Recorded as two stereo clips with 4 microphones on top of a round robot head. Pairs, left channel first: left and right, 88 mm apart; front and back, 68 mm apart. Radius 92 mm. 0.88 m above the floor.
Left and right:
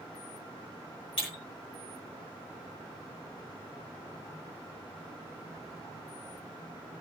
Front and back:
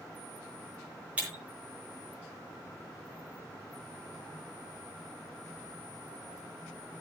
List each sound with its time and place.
1.2 s breaking glass: 110° left, 8.5 m